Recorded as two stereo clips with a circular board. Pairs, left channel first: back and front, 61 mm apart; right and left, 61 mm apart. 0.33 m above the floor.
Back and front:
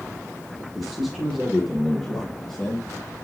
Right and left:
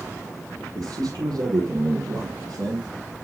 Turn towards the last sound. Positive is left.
turn(degrees=110)